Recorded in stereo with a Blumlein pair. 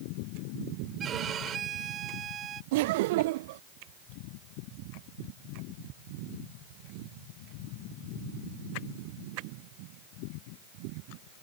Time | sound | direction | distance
1.0 | a violin | 25° right | ?
2.7 | laughter | 50° right | ?